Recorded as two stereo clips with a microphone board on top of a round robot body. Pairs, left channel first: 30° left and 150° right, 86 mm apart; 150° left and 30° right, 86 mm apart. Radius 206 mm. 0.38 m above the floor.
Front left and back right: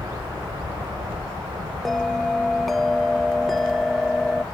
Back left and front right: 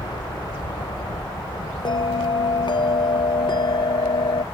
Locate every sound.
0.0 s a helicopter: 175° left; by 4.5 s 175° right
1.9 s a bell: 115° left